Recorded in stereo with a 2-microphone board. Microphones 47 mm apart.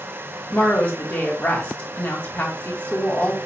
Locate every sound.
0.5 s a woman speaking: 35° left (ahead or behind), 1.3 m